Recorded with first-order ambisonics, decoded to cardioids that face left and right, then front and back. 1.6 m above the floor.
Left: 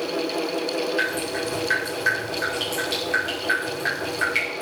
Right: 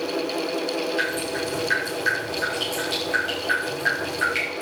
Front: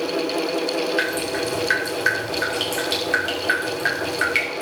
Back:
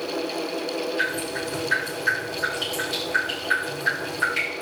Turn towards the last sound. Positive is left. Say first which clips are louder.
# left 1 dB, front 3 dB
turn(degrees=5)